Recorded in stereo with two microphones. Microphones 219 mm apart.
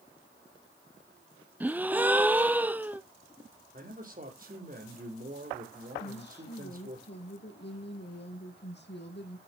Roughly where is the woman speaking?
Left.